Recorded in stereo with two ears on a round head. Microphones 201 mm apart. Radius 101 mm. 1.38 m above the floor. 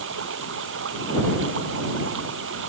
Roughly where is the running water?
Right.